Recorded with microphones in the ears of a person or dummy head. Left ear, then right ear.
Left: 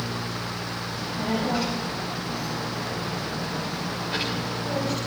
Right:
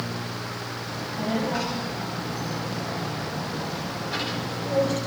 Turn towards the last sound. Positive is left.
turn(degrees=10)  # may be behind; listen again after turning